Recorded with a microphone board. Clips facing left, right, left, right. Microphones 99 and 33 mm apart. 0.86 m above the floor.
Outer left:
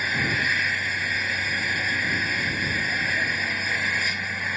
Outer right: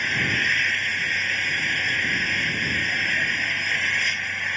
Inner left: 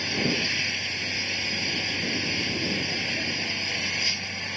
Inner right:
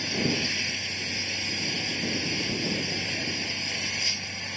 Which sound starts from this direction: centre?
An engine running, at 0.0 s.